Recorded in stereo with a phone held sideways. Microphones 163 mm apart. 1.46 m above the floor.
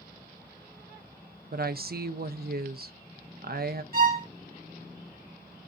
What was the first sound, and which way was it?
A woman speaking, 70° right (ahead or behind).